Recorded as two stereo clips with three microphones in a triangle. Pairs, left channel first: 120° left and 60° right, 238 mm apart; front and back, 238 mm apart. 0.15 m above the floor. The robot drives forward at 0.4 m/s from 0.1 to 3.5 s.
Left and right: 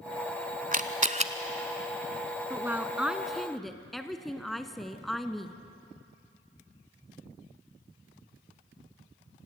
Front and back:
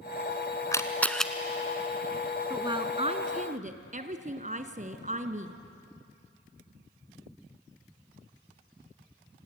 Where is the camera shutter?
65° right, 1.0 m; by 1.3 s 90° right, 1.0 m.